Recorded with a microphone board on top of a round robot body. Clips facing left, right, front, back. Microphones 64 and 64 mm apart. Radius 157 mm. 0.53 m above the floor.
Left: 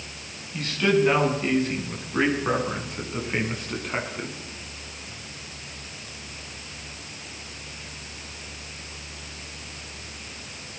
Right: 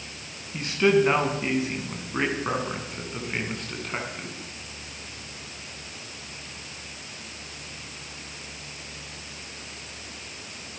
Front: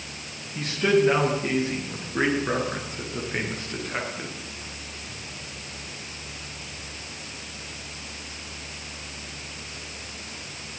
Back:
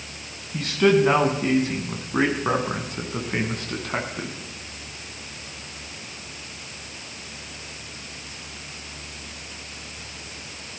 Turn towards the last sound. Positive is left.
turn(degrees=165)